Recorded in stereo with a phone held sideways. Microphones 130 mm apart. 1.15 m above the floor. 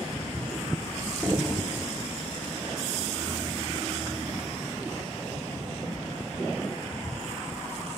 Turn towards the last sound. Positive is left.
turn(degrees=-10)  # may be behind; listen again after turning